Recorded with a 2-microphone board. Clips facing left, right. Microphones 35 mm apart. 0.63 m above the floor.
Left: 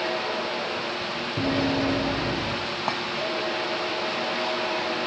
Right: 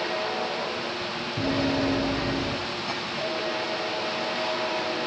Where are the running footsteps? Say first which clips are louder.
Left 1 dB; 35° left (ahead or behind), 2.0 m; by 2.6 s 25° left (ahead or behind), 2.5 m.